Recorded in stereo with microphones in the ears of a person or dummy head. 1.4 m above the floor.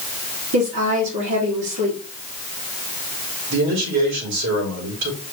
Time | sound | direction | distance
0.5 | a woman speaking | 75° right (ahead or behind) | 1.7 m
3.5 | a man speaking | 70° right (ahead or behind) | 3 m